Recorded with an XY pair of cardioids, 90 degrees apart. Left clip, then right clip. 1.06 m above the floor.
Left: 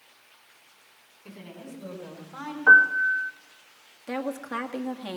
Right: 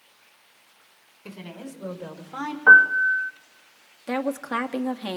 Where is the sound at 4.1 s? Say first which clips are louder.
Right 5 dB; 50° right, 1.5 m.